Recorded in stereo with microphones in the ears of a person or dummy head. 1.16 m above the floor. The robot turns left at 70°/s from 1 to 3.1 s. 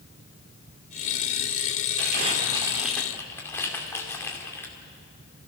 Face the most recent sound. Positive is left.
turn(degrees=15)  # may be behind; listen again after turning